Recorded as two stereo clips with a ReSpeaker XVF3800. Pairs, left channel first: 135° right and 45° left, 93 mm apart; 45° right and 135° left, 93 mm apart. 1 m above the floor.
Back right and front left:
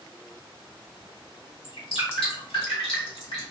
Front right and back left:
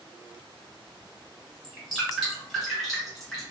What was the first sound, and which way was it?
Dripping, 135° right.